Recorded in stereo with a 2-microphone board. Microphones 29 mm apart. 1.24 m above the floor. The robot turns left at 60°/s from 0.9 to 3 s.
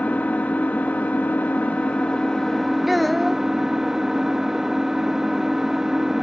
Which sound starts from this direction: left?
An engine running, at 0.0 s.